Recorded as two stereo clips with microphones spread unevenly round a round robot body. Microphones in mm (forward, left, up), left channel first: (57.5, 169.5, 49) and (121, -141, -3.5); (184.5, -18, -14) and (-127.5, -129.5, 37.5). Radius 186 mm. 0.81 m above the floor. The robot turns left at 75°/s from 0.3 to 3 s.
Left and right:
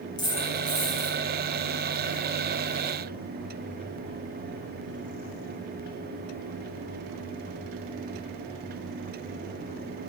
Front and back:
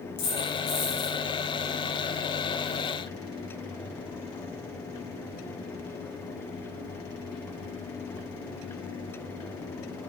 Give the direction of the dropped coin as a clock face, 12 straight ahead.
11 o'clock.